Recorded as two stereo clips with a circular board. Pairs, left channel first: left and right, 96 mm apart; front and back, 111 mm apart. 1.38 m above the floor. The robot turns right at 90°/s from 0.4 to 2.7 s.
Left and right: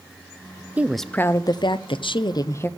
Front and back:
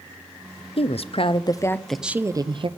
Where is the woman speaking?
20° right, 0.6 m; by 2.7 s 155° left, 0.6 m.